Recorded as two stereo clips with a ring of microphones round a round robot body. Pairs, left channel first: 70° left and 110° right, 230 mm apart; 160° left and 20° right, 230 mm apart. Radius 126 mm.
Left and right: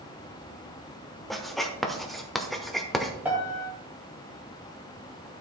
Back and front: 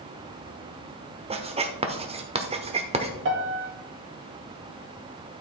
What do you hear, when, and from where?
1.3 s writing: 20° right, 1.1 m
3.2 s a piano: 30° right, 2.5 m